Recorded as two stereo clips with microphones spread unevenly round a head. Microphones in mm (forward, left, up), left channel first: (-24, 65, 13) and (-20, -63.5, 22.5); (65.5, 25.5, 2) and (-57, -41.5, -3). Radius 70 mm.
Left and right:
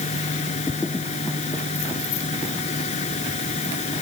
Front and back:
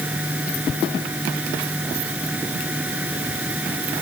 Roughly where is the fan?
Behind left.